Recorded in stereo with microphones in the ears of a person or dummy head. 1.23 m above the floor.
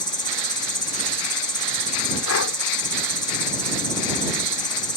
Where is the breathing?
70° left (ahead or behind).